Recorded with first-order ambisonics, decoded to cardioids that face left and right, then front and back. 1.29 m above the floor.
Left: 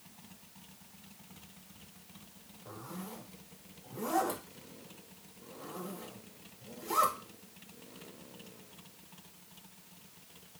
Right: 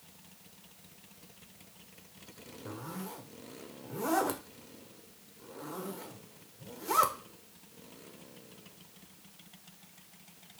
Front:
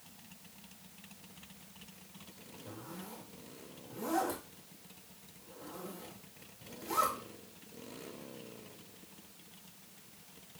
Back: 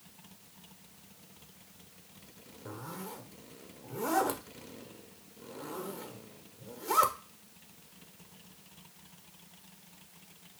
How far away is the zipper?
About 0.6 m.